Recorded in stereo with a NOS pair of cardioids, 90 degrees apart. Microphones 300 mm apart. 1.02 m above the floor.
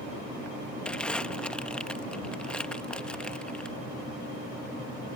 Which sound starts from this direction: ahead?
Crumpling, at 0.8 s.